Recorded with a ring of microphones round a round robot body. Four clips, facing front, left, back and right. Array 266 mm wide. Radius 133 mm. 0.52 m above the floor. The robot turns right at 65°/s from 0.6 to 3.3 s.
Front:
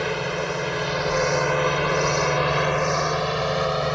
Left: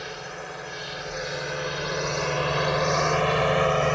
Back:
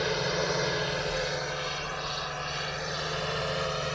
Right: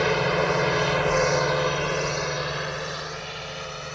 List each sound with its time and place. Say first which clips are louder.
0.0 s a drone: right 14 dB, front 3 dB; 70° right; by 4.0 s 55° left